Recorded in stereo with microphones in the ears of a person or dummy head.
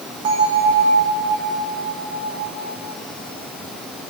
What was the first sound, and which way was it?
A bell, 35° right (ahead or behind).